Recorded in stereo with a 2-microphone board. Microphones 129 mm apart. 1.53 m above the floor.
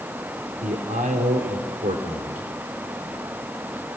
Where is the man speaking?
75° right (ahead or behind), 4 m; by 2.5 s 85° right, 4.5 m.